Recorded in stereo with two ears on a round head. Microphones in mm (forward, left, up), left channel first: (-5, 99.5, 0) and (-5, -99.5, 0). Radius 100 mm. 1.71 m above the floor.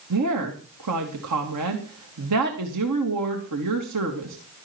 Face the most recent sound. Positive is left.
turn(degrees=-85)